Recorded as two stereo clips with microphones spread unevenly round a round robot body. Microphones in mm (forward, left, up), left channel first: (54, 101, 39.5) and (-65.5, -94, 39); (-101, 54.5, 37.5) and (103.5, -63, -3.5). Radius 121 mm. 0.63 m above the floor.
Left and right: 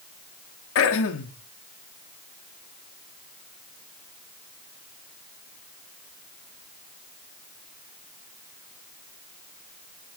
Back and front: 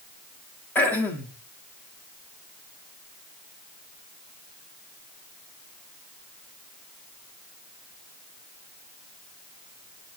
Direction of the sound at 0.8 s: 60° left.